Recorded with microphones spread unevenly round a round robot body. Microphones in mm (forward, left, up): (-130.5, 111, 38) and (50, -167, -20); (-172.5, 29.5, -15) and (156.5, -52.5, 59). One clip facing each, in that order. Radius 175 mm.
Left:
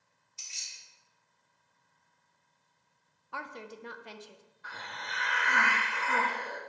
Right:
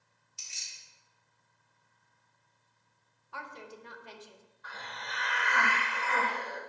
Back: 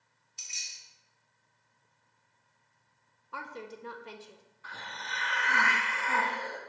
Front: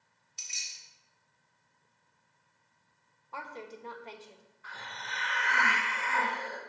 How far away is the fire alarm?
I don't hear a fire alarm.